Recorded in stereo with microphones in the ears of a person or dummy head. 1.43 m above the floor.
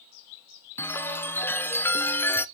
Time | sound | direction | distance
0.8 | a chime | 5° left (ahead or behind) | 0.6 m